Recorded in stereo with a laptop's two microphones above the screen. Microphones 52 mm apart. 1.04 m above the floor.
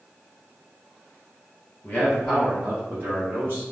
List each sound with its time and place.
1.8 s a man speaking: 35° left (ahead or behind), 0.7 m; by 3.6 s 45° right (ahead or behind), 1.1 m